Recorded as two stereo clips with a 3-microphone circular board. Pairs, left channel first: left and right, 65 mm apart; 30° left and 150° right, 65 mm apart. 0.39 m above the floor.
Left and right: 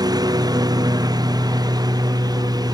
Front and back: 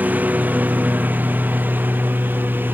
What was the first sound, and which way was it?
A lawn mower, 85° right.